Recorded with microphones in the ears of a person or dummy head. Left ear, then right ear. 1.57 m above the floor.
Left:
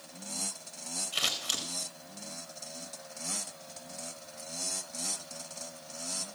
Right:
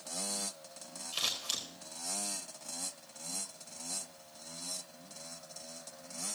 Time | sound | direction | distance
1.1 | scissors | 5° left (ahead or behind) | 1.6 m